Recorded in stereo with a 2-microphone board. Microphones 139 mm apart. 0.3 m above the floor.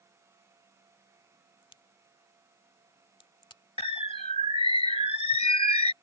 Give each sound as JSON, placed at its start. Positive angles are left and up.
{"t": 1.6, "sound": "a crack", "side_deg": 35}
{"t": 3.8, "sound": "a bird", "side_deg": 45}